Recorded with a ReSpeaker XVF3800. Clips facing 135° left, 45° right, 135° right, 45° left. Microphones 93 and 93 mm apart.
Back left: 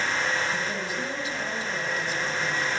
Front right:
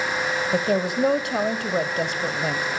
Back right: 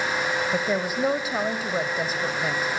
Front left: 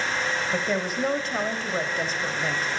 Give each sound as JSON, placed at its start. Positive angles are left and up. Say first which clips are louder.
{"t": 0.5, "sound": "a woman speaking", "louder": "front right 8 dB, back right 1 dB", "azimuth_deg": -55, "distance_m": 1.8}